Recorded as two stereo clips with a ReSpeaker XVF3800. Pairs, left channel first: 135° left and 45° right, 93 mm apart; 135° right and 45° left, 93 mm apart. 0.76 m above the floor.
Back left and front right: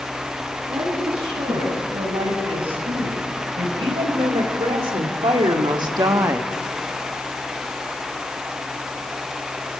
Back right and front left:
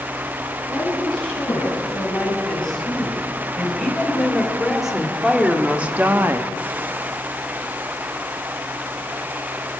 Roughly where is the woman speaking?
Ahead right.